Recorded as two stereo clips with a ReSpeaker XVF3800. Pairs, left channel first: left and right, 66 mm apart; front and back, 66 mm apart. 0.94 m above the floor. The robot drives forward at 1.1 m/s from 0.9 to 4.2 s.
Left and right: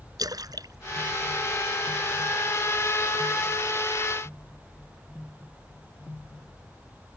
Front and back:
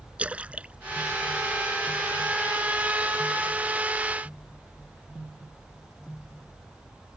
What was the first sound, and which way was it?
A splash, 110° right.